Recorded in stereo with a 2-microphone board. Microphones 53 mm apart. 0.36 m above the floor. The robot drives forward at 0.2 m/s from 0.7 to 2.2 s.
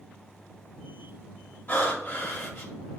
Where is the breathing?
40° left (ahead or behind), 1.0 m.